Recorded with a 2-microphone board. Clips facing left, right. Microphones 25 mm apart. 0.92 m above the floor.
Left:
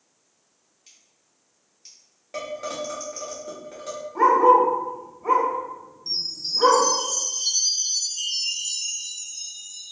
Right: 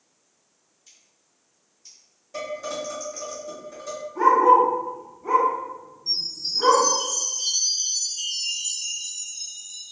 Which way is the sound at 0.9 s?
45° left (ahead or behind).